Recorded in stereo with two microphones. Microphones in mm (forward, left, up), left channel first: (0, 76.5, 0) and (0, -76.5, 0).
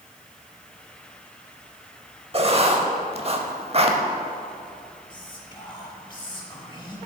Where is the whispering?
30° left (ahead or behind), 1.1 m.